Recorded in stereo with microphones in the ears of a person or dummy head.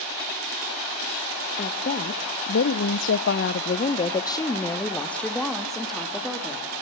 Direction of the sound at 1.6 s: 40° left (ahead or behind).